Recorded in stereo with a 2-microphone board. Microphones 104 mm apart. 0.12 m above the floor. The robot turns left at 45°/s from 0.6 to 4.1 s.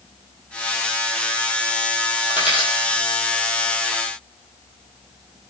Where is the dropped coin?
10° right (ahead or behind), 1.6 m; by 3.0 s 20° left (ahead or behind), 1.6 m.